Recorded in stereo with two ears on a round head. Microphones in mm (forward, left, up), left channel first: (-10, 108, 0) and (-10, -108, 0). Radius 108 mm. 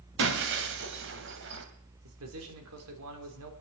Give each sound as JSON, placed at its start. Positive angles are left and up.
{"t": 0.2, "sound": "breaking glass", "side_deg": -50, "distance_m": 1.8}
{"t": 2.0, "sound": "a man speaking", "side_deg": -65, "distance_m": 3.0}